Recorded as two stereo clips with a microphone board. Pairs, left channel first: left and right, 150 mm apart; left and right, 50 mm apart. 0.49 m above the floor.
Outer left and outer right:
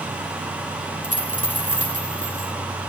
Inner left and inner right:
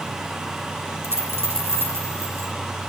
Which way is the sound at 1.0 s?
55° right (ahead or behind).